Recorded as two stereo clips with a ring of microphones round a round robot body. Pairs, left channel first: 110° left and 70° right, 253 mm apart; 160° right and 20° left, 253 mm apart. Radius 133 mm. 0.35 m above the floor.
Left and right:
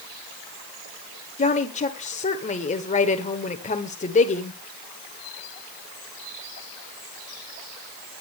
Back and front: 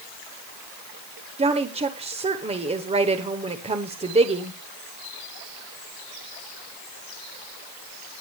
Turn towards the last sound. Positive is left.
turn(degrees=70)